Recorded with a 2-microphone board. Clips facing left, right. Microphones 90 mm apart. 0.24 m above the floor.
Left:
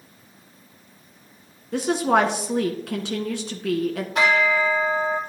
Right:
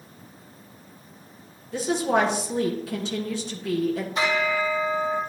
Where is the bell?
75° left (ahead or behind), 5.5 m.